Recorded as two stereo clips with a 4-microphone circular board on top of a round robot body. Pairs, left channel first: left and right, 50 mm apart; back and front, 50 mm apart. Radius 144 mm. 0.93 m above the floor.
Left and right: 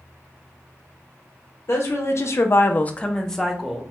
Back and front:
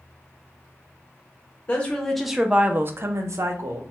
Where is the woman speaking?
115° left, 0.7 m; by 3.8 s straight ahead, 0.9 m.